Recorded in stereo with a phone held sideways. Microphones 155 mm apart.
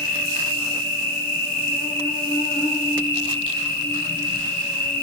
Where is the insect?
15° left (ahead or behind), 3.5 m.